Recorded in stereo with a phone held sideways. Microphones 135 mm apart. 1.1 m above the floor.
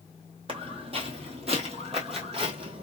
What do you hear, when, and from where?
0.5 s footsteps: 45° right (ahead or behind), 1.6 m